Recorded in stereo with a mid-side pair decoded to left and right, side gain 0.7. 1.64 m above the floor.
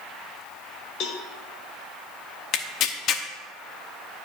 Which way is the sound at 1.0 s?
50° left.